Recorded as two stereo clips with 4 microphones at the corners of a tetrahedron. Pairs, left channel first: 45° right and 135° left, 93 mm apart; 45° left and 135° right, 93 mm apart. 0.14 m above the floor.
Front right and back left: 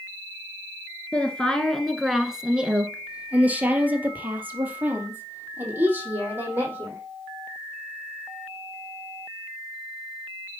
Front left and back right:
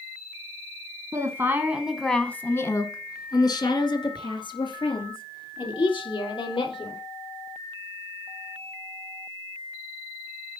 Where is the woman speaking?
110° right, 1.4 m; by 7.0 s 70° left, 5 m.